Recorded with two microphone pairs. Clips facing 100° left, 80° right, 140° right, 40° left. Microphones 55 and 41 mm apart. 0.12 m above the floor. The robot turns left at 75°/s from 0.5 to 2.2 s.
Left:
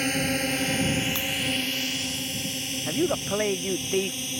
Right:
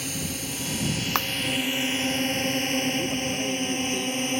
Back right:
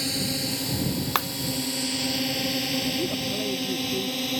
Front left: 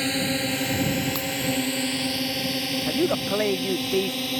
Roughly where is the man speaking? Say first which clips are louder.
Left 1 dB, front left 4 dB; ahead left.